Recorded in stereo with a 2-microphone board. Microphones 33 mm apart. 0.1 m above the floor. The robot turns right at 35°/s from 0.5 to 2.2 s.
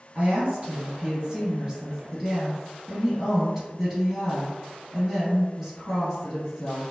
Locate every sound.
0.1 s a woman speaking: 80° right, 1.9 m; by 6.8 s 20° right, 1.9 m